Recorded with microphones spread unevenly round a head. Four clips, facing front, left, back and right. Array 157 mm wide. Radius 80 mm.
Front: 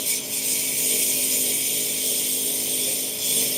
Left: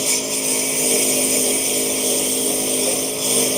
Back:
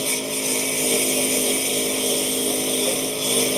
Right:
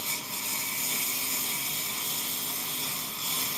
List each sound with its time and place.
0.0 s a lawn mower: 125° left